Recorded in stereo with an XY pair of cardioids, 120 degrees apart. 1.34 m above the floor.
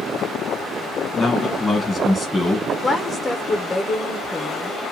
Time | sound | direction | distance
1.1 | a man speaking | 15° left | 1.3 m
2.7 | a woman speaking | 20° left | 1.0 m